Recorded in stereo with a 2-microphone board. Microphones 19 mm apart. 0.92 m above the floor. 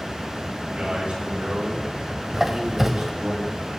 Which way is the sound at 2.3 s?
25° right (ahead or behind).